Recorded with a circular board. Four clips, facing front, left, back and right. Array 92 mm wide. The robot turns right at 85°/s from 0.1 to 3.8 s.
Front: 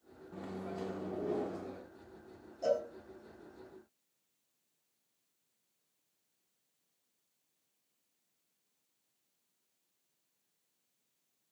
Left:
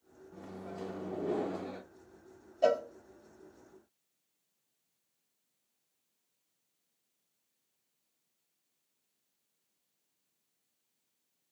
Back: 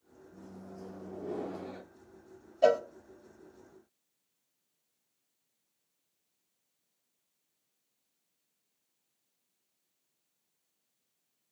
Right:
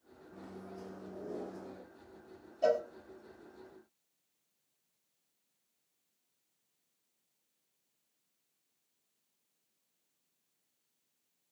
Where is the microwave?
Straight ahead, 1.0 m; by 1.8 s 130° left, 1.0 m.